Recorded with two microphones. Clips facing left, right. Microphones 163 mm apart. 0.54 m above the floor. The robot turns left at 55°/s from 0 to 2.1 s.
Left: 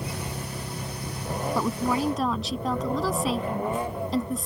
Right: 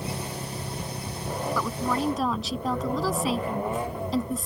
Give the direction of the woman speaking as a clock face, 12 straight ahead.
11 o'clock.